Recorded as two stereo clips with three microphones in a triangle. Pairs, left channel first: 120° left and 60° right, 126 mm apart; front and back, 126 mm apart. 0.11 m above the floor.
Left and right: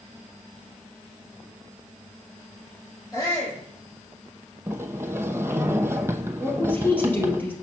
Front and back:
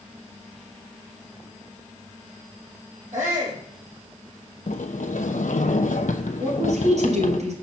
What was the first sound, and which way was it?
A shout, straight behind.